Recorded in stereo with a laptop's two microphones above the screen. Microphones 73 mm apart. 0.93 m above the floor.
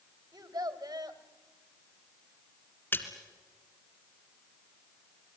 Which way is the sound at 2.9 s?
30° left (ahead or behind).